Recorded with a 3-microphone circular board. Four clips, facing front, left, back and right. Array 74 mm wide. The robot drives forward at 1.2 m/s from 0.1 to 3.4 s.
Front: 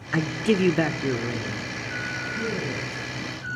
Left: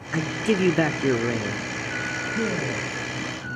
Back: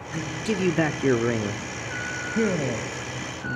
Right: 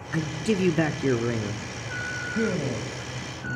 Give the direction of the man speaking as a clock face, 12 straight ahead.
11 o'clock.